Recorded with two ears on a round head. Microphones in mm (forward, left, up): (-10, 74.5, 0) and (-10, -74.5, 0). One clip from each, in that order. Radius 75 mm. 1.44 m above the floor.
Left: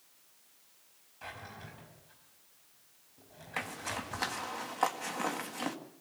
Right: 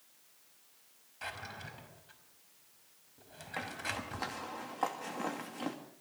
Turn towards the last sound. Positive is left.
turn(degrees=35)  # may be behind; listen again after turning